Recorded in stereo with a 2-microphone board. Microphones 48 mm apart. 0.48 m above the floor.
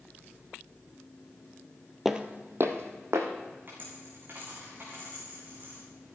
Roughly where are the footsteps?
Centre.